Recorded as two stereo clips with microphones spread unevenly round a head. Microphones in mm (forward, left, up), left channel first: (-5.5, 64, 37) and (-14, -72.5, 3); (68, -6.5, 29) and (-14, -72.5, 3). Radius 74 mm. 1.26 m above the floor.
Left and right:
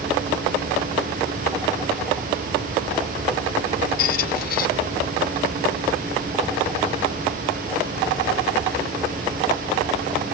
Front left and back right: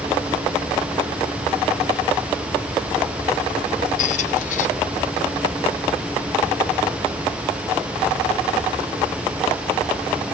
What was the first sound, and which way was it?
A squeak, 60° left.